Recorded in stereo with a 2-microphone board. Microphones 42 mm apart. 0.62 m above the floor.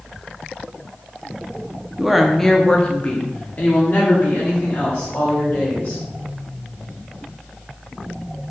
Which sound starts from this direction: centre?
A woman speaking, at 2.0 s.